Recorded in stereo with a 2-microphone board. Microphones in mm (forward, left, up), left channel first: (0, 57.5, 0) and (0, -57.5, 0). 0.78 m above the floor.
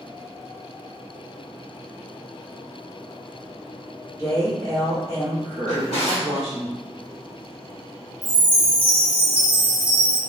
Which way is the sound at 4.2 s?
30° right (ahead or behind).